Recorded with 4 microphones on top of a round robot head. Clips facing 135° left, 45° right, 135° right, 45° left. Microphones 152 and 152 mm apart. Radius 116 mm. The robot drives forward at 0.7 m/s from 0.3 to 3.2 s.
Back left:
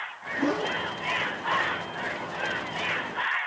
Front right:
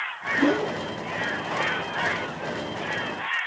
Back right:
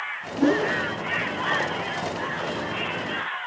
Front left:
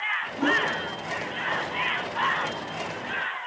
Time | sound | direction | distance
0.4 | a whoosh | 90° right | ?